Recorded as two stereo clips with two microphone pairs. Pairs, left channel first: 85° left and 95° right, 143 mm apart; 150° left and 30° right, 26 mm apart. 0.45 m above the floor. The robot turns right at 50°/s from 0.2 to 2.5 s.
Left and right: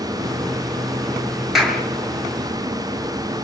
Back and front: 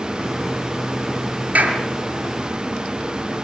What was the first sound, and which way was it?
A clap, 10° right.